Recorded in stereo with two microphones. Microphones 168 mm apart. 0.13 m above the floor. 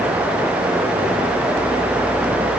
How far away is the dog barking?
No dog barking in this recording.